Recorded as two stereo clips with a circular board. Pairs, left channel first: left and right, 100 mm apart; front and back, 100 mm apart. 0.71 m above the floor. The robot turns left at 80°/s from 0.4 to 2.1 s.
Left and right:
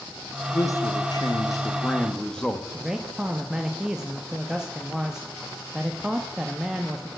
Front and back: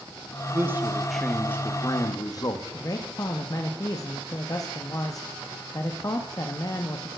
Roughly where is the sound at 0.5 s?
Behind left.